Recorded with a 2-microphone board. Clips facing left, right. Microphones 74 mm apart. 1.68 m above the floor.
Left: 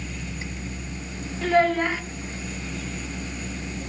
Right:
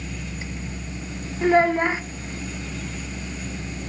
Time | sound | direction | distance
1.4 | a child speaking | 25° right (ahead or behind) | 0.8 m